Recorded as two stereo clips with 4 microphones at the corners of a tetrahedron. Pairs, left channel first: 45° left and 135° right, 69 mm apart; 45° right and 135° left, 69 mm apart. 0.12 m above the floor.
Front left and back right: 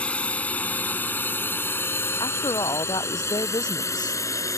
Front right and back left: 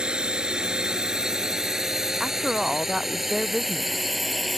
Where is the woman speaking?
50° left.